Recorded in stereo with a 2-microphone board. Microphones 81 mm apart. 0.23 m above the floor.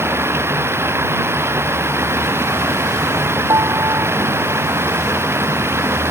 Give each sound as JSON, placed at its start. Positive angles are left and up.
{"t": 0.0, "sound": "running water", "side_deg": -30}
{"t": 3.5, "sound": "a piano", "side_deg": -40}